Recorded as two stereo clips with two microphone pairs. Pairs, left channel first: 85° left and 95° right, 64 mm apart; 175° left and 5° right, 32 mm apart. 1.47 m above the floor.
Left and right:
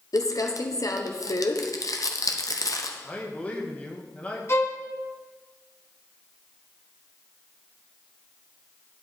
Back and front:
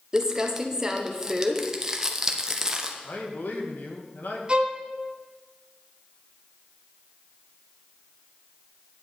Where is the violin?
45° left, 1.5 m.